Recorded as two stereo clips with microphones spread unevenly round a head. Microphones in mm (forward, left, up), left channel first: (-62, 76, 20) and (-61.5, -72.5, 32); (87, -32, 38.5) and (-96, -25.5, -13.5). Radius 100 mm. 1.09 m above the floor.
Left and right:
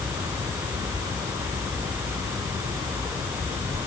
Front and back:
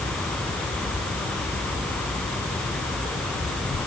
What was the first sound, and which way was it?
Only background noise.